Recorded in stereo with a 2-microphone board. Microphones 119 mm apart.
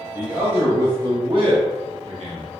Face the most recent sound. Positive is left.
turn(degrees=-65)  # may be behind; listen again after turning